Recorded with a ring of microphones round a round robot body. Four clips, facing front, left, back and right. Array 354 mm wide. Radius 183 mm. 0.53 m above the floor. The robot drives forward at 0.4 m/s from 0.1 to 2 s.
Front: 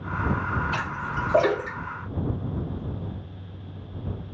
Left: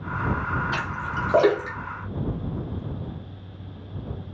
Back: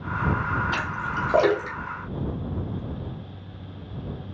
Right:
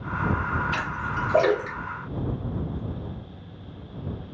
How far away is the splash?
About 1.8 m.